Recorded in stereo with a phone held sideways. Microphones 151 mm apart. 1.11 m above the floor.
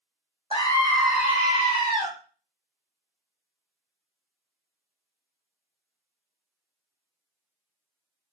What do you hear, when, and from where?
0.5 s a scream: 35° left (ahead or behind), 0.8 m; by 2.1 s 45° right (ahead or behind), 1.2 m